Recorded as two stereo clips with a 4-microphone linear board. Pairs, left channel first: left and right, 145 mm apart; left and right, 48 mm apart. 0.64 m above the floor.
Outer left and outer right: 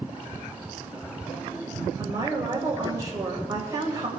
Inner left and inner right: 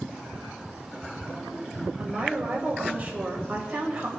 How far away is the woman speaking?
About 2.5 m.